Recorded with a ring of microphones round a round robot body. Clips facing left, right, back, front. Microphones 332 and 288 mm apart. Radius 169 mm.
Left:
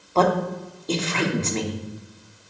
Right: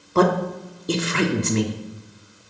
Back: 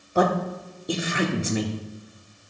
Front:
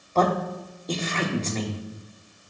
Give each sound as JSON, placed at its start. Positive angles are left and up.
{"t": 0.1, "sound": "a man speaking", "azimuth_deg": -120, "distance_m": 0.9}